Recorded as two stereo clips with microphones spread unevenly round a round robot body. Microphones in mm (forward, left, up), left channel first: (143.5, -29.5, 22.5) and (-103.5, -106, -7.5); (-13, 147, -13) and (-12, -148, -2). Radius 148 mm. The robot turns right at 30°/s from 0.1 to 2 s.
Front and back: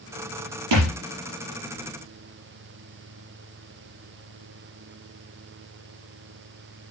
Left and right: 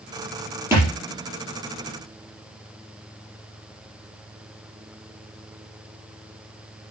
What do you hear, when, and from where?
0.7 s a thud: 170° right, 4.5 m; by 0.9 s 165° right, 4.5 m